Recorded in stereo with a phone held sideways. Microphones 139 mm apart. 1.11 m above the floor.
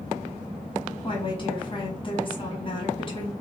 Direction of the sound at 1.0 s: 35° left (ahead or behind).